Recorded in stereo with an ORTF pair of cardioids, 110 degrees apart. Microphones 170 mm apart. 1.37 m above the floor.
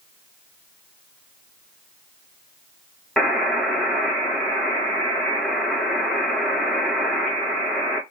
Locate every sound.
3.2 s a buzzer: straight ahead, 1.2 m